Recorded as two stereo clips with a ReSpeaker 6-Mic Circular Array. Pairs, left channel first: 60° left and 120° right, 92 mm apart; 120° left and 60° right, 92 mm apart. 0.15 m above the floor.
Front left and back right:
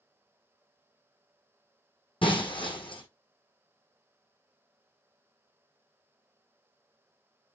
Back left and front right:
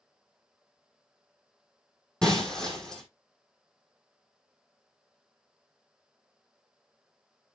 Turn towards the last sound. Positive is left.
turn(degrees=35)